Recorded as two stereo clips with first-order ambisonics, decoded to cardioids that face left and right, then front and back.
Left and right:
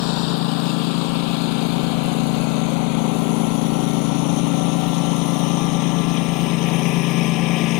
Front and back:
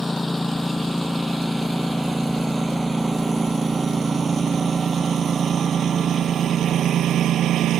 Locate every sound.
0.0 s a lawn mower: 85° left; by 7.8 s 125° left